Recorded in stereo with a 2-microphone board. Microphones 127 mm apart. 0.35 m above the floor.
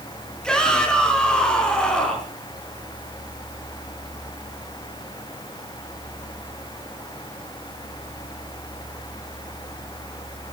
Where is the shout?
5° left (ahead or behind), 4.5 m.